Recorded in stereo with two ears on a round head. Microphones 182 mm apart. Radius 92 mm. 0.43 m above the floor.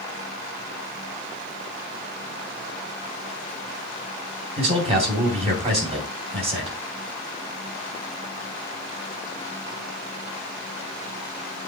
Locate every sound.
4.6 s a man speaking: 30° right (ahead or behind), 2.5 m